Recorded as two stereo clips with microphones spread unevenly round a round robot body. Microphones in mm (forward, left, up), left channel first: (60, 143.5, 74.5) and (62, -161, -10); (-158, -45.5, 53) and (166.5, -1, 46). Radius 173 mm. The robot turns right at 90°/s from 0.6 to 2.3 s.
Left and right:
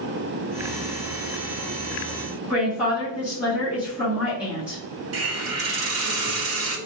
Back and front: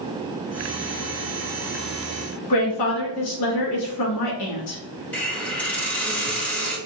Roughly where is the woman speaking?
Behind.